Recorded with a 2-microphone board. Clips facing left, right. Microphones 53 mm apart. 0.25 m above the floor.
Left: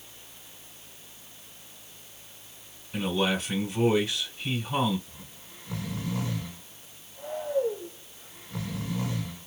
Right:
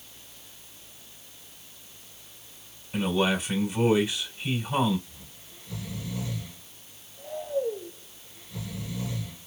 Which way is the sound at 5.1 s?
50° left (ahead or behind).